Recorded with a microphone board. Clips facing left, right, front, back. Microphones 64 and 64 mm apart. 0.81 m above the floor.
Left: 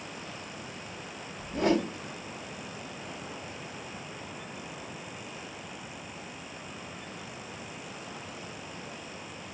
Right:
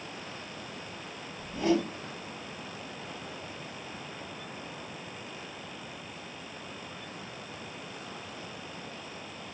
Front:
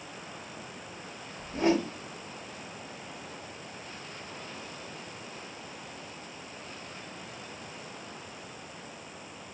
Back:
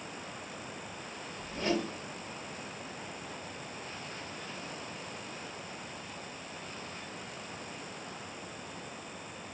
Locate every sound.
1.4 s a whoosh: 65° left, 1.0 m